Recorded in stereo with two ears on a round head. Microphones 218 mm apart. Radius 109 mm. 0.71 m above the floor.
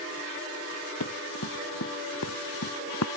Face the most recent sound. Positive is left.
turn(degrees=70)  # may be behind; listen again after turning